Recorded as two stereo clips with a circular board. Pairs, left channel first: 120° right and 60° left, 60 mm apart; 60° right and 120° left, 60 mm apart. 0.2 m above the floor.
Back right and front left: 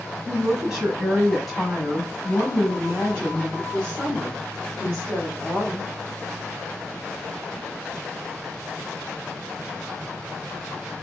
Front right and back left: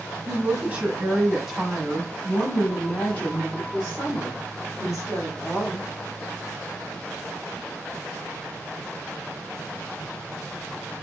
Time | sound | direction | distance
0.3 | a woman speaking | 130° left | 1.4 m